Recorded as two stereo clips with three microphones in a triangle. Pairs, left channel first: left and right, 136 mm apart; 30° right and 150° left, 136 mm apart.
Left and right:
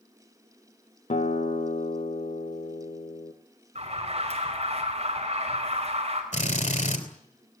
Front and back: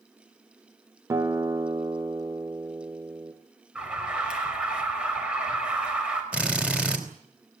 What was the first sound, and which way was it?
A guitar, 90° left.